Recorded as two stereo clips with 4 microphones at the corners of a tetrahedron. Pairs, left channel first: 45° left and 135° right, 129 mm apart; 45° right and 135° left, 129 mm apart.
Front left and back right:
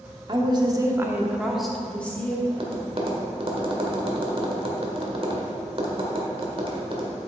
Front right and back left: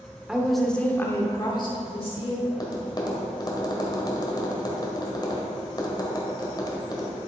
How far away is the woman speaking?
About 1.2 m.